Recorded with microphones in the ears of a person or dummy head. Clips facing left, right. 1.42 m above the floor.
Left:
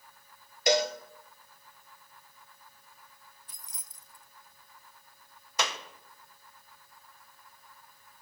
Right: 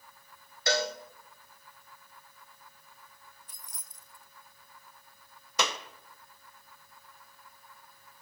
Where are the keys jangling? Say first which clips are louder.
Right 1 dB; 60° left (ahead or behind), 0.5 m.